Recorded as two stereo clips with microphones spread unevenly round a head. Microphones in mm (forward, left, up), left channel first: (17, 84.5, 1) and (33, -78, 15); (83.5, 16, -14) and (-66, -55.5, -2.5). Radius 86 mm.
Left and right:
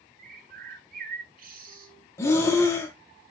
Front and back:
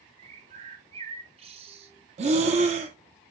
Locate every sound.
0.2 s a bird: 105° right, 0.6 m
2.2 s breathing: 170° left, 0.6 m